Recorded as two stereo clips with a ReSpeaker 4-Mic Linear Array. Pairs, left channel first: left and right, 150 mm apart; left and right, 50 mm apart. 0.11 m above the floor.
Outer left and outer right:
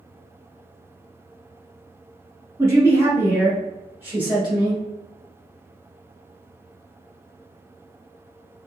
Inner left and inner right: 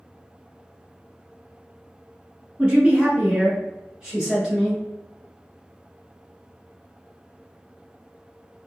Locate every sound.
2.6 s a man speaking: 20° right (ahead or behind), 1.3 m; by 4.8 s 10° right (ahead or behind), 1.4 m